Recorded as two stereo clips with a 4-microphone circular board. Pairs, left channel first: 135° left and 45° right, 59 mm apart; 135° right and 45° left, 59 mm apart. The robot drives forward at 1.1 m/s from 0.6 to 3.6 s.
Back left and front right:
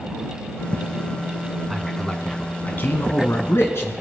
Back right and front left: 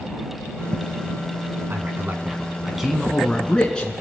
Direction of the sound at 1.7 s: 45° left.